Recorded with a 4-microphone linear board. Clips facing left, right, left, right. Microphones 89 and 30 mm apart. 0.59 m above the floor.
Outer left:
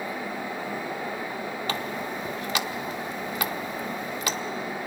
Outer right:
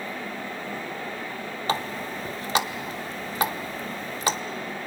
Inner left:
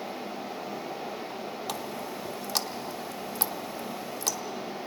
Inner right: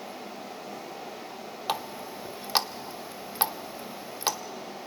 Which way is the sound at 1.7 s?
30° right (ahead or behind).